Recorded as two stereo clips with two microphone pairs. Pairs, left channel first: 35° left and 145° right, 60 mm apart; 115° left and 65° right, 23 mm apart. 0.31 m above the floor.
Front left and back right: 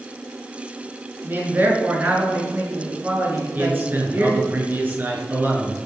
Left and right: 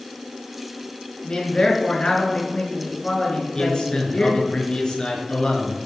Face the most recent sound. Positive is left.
turn(degrees=160)